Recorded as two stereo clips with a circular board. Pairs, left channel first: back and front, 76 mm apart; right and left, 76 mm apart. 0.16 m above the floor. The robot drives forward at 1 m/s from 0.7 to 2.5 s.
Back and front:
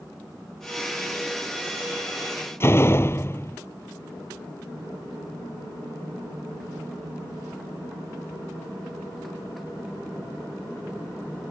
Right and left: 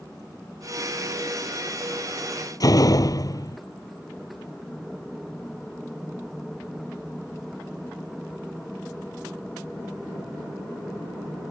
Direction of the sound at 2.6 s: 125° right.